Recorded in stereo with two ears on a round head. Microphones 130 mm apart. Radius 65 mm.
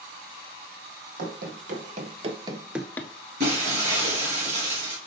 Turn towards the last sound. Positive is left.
turn(degrees=-50)  # may be behind; listen again after turning